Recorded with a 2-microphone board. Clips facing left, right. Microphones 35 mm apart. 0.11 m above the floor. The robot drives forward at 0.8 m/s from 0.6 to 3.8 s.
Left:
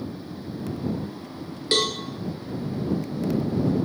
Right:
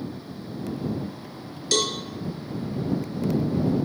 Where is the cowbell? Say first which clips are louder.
Left 1 dB; 30° left (ahead or behind), 1.7 m.